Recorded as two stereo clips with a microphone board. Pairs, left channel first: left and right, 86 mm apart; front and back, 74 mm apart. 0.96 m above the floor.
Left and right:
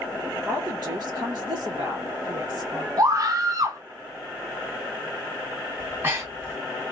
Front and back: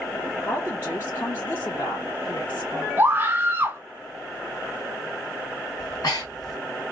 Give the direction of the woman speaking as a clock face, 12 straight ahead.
2 o'clock.